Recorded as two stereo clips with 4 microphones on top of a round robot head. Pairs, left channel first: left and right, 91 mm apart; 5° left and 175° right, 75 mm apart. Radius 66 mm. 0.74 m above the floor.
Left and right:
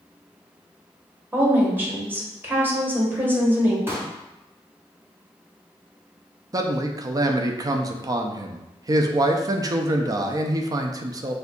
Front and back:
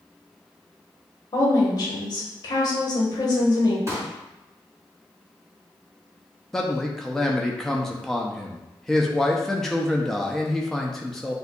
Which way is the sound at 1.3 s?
25° right.